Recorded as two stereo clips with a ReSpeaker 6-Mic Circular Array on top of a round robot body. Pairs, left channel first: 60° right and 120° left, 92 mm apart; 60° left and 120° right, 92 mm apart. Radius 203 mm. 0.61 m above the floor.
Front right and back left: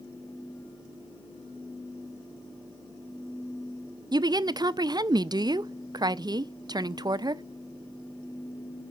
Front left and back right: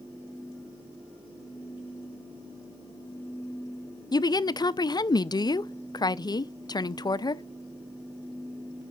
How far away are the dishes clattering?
No dishes clattering in this recording.